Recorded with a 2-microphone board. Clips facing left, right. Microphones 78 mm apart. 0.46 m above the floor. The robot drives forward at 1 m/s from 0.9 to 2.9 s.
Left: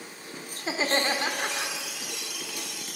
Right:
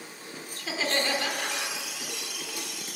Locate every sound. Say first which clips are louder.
0.6 s laughter: left 2 dB; 30° left (ahead or behind), 1.3 m